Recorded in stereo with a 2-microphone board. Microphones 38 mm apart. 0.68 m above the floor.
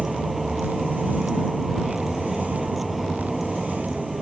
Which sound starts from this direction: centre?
A vehicle, at 0.0 s.